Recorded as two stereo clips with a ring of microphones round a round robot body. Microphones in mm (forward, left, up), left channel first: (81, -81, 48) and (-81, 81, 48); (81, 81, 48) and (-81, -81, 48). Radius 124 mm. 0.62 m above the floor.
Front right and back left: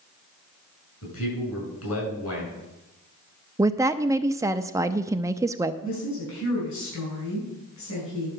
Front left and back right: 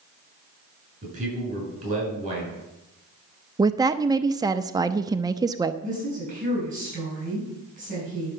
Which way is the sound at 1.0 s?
75° right.